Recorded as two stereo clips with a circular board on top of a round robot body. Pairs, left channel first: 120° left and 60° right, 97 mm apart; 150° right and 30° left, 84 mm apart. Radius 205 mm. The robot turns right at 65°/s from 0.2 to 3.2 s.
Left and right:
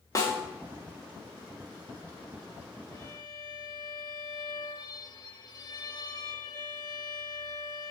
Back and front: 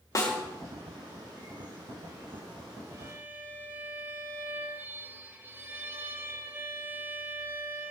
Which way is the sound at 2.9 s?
70° left.